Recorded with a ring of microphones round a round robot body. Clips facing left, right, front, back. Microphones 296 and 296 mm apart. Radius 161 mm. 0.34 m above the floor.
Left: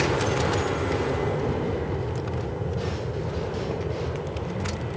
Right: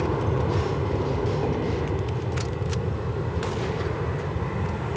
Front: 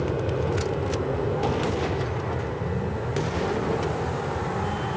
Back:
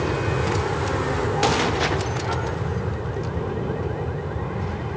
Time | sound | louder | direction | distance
0.0 | an aircraft | left 1 dB, back 1 dB | 120° right | ?